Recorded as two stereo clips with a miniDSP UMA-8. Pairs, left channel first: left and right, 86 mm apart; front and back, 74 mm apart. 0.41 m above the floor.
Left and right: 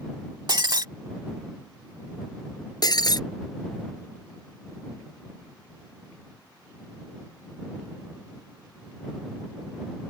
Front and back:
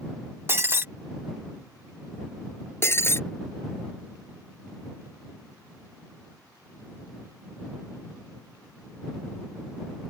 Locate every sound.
0.5 s breaking glass: 120° right
2.8 s breaking glass: 55° left